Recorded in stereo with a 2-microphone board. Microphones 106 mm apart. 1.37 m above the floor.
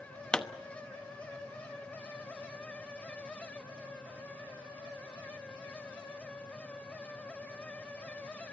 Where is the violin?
No violin in this recording.